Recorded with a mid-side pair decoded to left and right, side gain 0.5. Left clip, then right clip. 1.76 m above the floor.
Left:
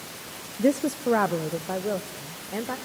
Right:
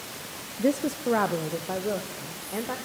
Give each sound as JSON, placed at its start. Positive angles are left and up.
{"t": 0.6, "sound": "a woman speaking", "azimuth_deg": 25, "distance_m": 0.5}